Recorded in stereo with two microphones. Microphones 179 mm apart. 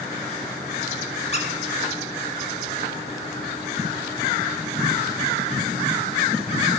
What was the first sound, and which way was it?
A squeak, 35° left (ahead or behind).